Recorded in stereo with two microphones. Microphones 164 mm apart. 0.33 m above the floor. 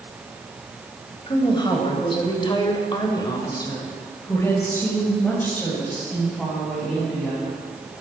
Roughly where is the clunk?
I don't hear a clunk.